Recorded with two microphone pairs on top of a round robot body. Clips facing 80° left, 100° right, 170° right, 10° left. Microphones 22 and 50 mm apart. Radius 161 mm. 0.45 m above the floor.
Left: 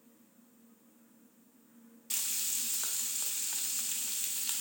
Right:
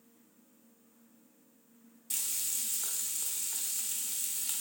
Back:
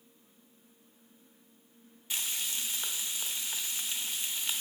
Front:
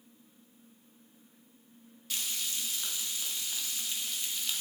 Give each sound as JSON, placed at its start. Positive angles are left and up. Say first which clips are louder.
{"t": 2.1, "sound": "frying", "louder": "left 1 dB, back 1 dB", "azimuth_deg": 145, "distance_m": 0.9}